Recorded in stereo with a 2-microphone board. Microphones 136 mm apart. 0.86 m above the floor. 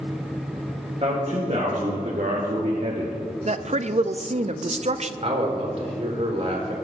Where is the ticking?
I don't hear ticking.